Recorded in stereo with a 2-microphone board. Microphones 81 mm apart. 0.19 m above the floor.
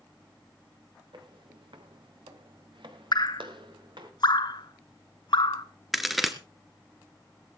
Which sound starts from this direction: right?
Footsteps, at 1.1 s.